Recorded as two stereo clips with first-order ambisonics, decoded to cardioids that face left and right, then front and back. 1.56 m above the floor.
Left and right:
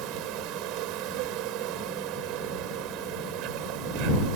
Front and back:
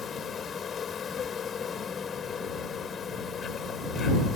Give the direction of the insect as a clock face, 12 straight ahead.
2 o'clock.